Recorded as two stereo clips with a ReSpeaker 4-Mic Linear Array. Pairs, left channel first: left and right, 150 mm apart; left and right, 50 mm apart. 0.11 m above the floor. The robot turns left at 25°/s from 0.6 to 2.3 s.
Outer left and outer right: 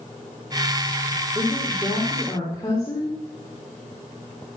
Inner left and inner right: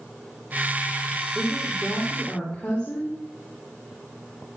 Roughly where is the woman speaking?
Centre.